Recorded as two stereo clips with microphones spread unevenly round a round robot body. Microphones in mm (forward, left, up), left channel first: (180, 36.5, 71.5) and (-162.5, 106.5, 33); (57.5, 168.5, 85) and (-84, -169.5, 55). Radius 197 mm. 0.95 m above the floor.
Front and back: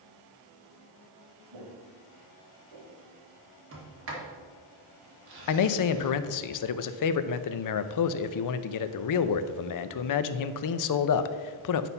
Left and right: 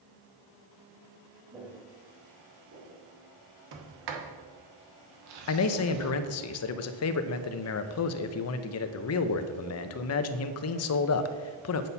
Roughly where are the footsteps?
Behind.